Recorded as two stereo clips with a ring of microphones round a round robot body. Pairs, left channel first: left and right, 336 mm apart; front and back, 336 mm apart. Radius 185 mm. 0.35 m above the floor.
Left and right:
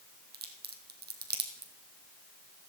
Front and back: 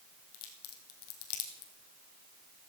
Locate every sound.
0.3 s a crack: 30° right, 2.5 m